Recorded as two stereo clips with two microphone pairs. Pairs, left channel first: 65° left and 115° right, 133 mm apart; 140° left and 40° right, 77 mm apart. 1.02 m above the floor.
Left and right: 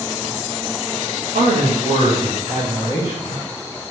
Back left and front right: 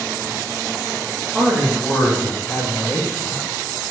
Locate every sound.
1.4 s a man speaking: 125° right, 1.3 m; by 3.4 s 100° left, 1.0 m